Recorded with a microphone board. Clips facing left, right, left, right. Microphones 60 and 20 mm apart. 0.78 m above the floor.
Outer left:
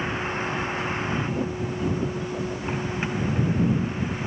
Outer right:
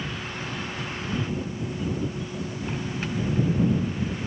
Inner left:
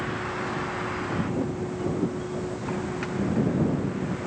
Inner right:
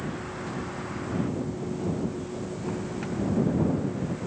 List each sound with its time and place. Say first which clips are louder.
0.0 s a vehicle: outer left 6 dB, inner left 5 dB; 30° left (ahead or behind); by 4.3 s 20° left (ahead or behind)